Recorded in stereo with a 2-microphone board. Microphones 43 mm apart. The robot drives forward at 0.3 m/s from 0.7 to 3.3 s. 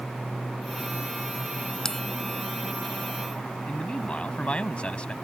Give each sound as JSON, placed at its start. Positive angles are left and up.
{"t": 1.9, "sound": "a bell", "side_deg": 15}
{"t": 3.7, "sound": "a man speaking", "side_deg": 25}